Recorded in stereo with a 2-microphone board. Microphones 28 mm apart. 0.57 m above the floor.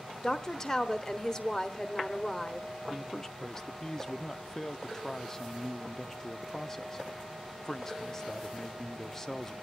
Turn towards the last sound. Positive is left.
turn(degrees=15)  # may be behind; listen again after turning